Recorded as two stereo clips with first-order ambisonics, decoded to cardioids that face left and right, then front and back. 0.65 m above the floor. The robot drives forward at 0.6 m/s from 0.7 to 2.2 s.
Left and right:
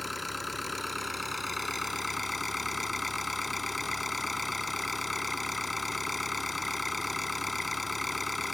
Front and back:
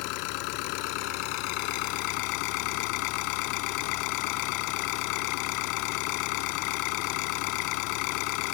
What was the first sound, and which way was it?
An engine running, 5° left.